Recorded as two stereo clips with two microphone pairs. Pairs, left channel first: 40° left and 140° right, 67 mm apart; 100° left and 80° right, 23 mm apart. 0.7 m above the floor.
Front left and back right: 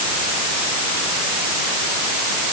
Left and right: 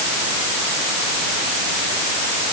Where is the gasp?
I don't hear a gasp.